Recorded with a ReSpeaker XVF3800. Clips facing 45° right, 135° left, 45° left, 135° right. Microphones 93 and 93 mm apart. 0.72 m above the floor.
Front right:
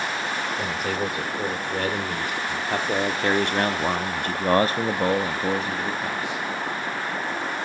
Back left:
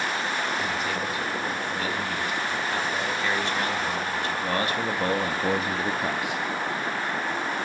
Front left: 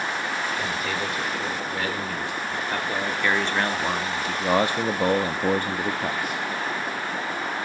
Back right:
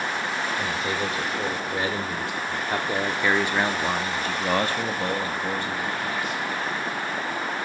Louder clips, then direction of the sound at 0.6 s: Front right 2 dB, back right 1 dB; 75° right.